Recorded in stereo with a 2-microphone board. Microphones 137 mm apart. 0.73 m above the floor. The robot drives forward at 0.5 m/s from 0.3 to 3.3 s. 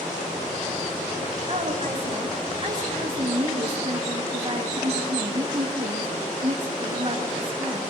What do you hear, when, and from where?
1.5 s a woman speaking: 45° right (ahead or behind), 5 m; by 7.8 s 40° right (ahead or behind), 6 m